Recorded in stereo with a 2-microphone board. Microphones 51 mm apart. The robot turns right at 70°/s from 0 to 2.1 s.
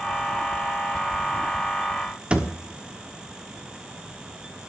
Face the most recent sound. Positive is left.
turn(degrees=-25)  # may be behind; listen again after turning